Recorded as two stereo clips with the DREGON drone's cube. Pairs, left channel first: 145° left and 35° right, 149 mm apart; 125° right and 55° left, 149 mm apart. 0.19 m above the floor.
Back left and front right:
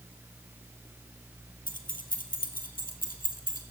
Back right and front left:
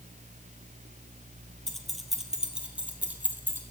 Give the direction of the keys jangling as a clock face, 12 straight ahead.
7 o'clock.